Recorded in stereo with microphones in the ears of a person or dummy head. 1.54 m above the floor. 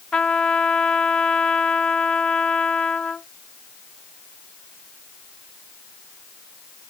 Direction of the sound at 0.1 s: Centre (ahead or behind).